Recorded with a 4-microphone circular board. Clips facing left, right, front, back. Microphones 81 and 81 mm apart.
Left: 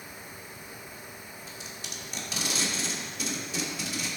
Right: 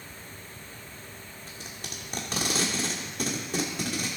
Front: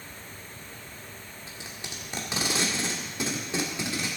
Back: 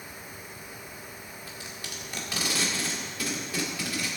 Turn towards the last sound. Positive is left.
turn(degrees=-65)